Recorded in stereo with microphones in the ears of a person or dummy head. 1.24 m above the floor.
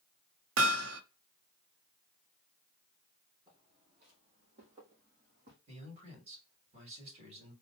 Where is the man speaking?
40° right (ahead or behind), 3 m.